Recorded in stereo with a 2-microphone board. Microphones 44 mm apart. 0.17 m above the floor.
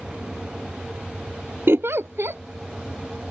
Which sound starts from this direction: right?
A giggle, at 1.7 s.